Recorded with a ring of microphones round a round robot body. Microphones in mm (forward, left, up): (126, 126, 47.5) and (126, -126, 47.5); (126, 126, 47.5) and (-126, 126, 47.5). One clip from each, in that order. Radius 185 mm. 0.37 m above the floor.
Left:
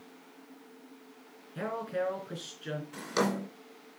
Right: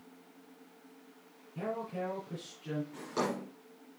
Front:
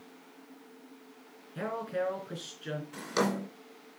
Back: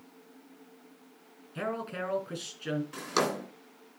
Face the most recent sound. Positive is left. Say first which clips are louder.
# left 5 dB, even
turn(degrees=140)